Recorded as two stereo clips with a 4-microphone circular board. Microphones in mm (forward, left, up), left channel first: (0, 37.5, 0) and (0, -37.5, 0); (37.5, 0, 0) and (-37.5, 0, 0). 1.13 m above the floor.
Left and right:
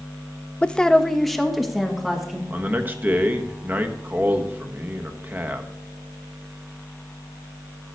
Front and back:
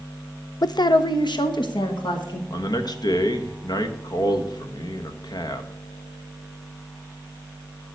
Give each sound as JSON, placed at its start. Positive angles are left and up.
{"t": 0.6, "sound": "a woman speaking", "azimuth_deg": 20, "distance_m": 0.5}
{"t": 2.5, "sound": "a man speaking", "azimuth_deg": -25, "distance_m": 1.1}